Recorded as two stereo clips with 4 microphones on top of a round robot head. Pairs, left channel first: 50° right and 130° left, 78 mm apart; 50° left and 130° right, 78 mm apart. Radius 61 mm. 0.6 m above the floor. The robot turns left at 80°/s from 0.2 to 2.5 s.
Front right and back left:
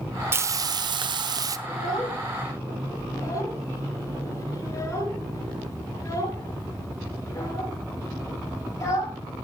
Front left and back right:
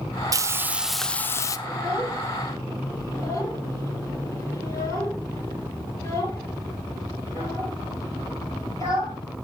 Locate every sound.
0.3 s frying: 170° right, 0.9 m; by 1.6 s 90° left, 0.9 m
1.7 s a child speaking: 65° left, 9.5 m; by 9.2 s straight ahead, 9.5 m